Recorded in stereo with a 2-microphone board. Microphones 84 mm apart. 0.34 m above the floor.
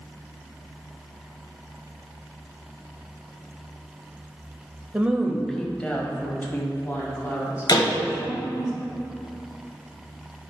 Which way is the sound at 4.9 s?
15° right (ahead or behind).